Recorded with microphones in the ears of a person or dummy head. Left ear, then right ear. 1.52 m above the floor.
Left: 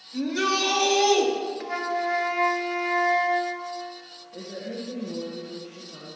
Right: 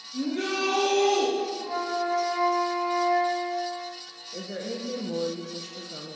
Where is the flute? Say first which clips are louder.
Left 1 dB; 50° left (ahead or behind), 1.1 m.